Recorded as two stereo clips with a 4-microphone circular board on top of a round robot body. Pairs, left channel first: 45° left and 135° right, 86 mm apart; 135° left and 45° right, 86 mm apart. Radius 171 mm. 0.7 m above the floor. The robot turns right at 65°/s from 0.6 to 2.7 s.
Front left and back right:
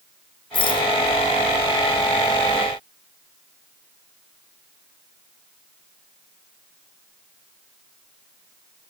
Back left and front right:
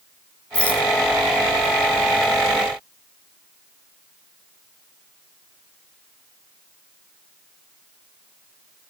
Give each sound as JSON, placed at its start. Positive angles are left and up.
{"t": 0.5, "sound": "a rattle", "azimuth_deg": 60, "distance_m": 1.6}